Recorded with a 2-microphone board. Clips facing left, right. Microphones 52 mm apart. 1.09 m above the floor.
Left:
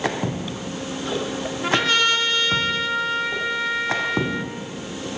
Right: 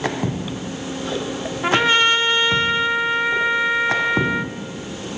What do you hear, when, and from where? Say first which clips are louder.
1.6 s a trumpet: right 4 dB; 25° right (ahead or behind), 1.9 m